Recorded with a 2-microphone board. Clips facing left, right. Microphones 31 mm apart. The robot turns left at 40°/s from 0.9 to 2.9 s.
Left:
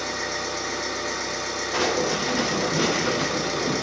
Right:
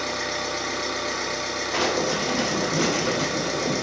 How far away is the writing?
About 0.8 m.